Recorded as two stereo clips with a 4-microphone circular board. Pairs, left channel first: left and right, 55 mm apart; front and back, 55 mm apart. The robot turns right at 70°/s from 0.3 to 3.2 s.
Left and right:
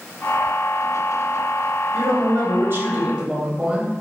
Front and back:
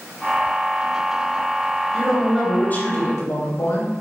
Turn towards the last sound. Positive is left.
turn(degrees=-20)